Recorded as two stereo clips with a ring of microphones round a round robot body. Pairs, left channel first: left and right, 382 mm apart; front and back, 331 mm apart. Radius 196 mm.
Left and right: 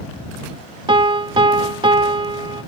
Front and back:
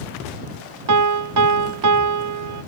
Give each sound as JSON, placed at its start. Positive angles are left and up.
{"t": 0.9, "sound": "a piano", "azimuth_deg": -165}